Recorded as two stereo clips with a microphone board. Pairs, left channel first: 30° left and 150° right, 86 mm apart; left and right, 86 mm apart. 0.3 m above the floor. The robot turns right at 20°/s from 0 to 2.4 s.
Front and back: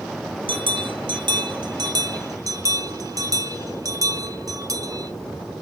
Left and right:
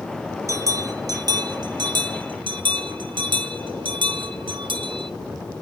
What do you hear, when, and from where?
0.5 s a bell: 145° right, 0.7 m; by 5.1 s 105° right, 0.7 m